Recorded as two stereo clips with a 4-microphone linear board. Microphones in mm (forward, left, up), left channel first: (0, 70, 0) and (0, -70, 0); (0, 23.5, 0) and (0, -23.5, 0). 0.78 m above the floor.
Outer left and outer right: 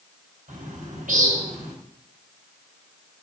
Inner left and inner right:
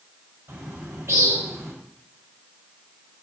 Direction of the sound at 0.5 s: 75° right (ahead or behind).